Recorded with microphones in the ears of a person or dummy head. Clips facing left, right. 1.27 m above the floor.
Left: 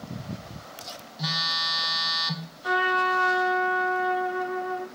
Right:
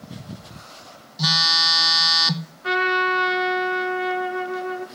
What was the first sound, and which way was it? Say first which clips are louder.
A phone buzzing: right 7 dB; 75° right (ahead or behind).